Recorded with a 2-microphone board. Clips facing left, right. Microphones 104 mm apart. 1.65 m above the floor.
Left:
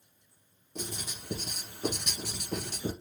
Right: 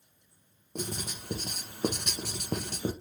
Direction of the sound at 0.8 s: 55° right (ahead or behind).